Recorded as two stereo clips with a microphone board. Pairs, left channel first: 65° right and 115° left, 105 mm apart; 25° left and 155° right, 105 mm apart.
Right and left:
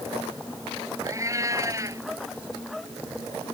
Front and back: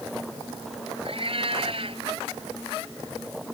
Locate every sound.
1.1 s a cat meowing: 175° left